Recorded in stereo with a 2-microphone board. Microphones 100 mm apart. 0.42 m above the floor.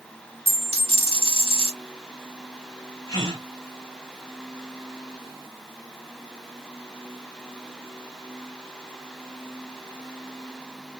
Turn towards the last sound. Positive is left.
turn(degrees=40)  # may be behind; listen again after turning